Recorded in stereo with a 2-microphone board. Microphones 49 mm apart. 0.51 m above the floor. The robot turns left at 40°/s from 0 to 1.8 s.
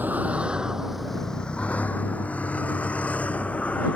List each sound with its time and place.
0.0 s a vehicle: 40° right (ahead or behind); by 4.0 s 30° left (ahead or behind)